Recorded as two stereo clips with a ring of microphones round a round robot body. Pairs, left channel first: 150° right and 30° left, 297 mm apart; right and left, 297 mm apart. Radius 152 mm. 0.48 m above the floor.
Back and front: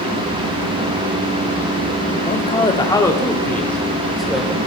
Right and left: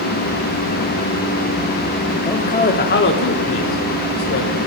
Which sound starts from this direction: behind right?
A man speaking, at 2.3 s.